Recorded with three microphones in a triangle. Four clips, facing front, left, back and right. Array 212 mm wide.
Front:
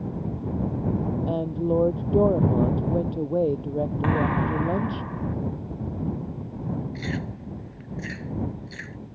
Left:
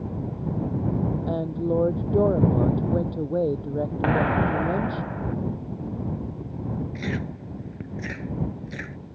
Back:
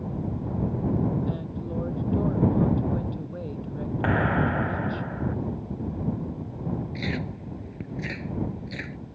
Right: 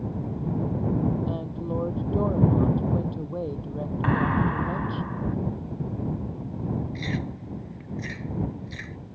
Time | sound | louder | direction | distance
1.3 | a woman speaking | left 5 dB, front 8 dB | 35° left | ?
4.0 | a clap | left 1 dB, back 2 dB | 110° left | ?
7.0 | chewing | left 1 dB, even | 130° left | ?